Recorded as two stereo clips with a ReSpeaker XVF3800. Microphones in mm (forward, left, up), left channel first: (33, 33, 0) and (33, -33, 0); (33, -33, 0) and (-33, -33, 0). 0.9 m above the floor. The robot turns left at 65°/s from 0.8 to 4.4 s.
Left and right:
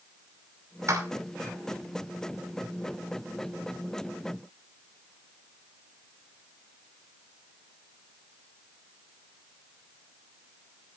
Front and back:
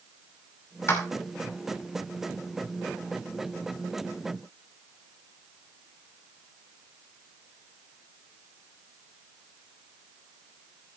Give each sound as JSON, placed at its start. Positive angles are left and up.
{"t": 0.9, "sound": "a clap", "azimuth_deg": -45, "distance_m": 2.5}